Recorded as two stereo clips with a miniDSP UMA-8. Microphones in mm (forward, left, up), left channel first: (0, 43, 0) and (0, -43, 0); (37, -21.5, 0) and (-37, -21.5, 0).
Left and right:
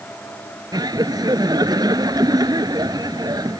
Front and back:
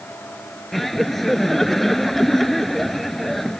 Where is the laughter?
85° right.